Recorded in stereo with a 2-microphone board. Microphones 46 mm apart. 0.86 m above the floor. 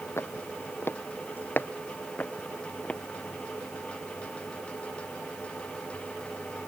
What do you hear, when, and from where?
0.2 s footsteps: 65° left (ahead or behind); by 3.0 s 25° left (ahead or behind)